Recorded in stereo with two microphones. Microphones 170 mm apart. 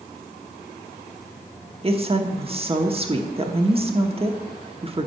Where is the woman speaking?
35° right (ahead or behind), 0.9 m.